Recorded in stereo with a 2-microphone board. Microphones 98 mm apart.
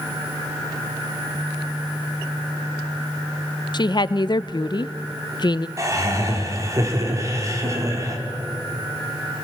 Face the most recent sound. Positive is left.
turn(degrees=-35)  # may be behind; listen again after turning